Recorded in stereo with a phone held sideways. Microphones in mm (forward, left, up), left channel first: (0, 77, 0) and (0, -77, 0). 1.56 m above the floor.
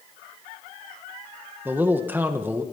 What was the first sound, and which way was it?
A man speaking, 10° right (ahead or behind).